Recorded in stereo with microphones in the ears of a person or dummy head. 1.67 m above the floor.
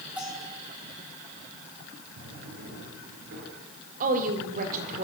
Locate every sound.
0.2 s a bell: 10° right (ahead or behind), 9.5 m
2.2 s a drawer: 55° right (ahead or behind), 9.5 m
4.0 s a woman speaking: 45° right (ahead or behind), 4 m